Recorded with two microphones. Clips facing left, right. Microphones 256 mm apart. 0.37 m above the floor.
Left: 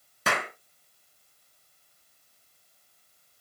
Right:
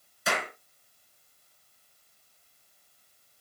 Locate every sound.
0.3 s a clap: 70° left (ahead or behind), 3 m